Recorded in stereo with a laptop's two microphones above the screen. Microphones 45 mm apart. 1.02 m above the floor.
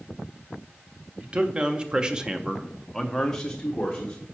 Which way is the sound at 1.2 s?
25° right (ahead or behind).